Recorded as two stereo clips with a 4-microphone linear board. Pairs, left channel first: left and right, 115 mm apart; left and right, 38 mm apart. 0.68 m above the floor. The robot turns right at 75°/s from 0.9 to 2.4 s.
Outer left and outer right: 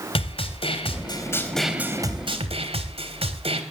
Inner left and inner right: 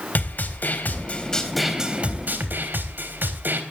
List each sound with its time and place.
0.1 s a snare drum: 125° left, 3.5 m; by 3.6 s 120° right, 3.5 m